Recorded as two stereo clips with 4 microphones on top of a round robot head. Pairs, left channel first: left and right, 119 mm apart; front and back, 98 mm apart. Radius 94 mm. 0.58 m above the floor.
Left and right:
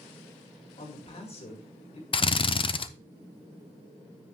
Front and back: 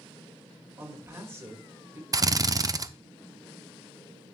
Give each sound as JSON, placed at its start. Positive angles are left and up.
{"t": 0.8, "sound": "a man speaking", "azimuth_deg": 120, "distance_m": 2.0}
{"t": 2.1, "sound": "a drill", "azimuth_deg": 130, "distance_m": 0.7}